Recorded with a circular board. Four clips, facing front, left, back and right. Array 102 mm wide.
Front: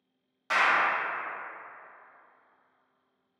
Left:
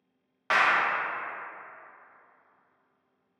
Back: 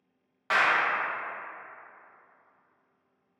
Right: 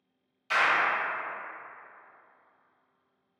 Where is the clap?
110° left, 0.6 m.